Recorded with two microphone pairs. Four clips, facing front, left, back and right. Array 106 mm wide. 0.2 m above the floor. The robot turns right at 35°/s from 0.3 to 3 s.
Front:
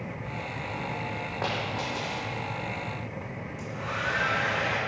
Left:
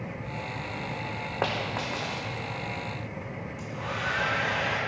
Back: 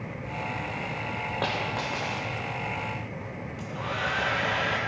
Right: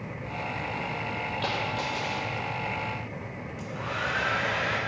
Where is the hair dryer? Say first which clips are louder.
Right 2 dB, back 2 dB; 175° left, 6 m.